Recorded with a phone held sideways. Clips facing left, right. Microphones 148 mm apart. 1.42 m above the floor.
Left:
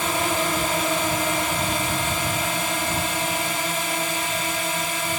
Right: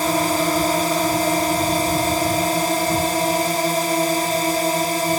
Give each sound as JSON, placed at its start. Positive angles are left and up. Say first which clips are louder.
{"t": 0.0, "sound": "a drone", "louder": "right 5 dB", "side_deg": -40}